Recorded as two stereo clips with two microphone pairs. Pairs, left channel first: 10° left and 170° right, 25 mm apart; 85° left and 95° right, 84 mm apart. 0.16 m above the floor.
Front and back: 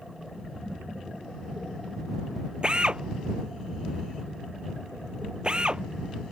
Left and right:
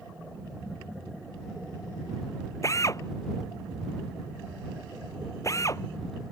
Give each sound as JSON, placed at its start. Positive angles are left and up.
{"t": 2.6, "sound": "a drill", "azimuth_deg": 135}